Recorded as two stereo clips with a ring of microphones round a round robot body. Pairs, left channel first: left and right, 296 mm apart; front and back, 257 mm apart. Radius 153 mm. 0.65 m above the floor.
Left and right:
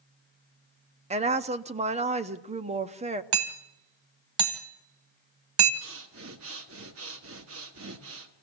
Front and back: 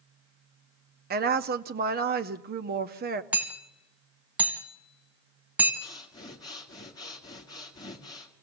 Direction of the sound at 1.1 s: 150° right.